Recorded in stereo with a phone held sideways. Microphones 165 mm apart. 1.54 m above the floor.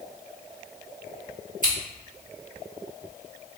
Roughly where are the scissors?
Right.